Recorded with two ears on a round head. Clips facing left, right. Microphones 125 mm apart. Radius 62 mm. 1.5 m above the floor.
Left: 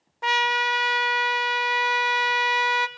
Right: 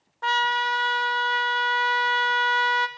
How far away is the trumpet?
About 0.6 m.